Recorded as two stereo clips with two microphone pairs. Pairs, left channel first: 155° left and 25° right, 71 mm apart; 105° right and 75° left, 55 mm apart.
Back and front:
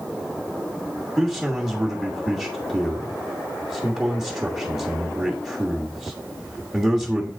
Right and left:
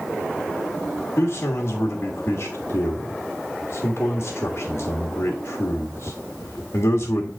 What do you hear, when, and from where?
1.2 s a man speaking: 105° right, 1.5 m